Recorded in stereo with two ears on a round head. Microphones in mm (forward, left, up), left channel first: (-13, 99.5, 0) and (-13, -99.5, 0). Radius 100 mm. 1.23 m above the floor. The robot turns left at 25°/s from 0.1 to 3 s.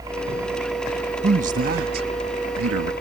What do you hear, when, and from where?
0.0 s a helicopter: 165° right; by 3.0 s 125° left
1.2 s a man speaking: 30° right; by 2.9 s 70° right